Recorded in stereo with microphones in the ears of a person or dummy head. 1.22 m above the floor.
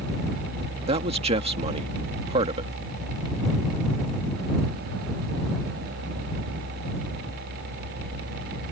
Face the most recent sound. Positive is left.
turn(degrees=-30)  # may be behind; listen again after turning